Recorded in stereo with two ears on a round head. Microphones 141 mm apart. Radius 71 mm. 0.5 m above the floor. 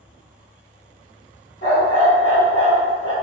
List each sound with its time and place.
1.6 s a dog barking: 45° left (ahead or behind), 1.2 m